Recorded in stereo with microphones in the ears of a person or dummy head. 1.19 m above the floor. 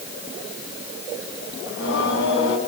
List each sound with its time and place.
1.7 s singing: 85° left, 5.5 m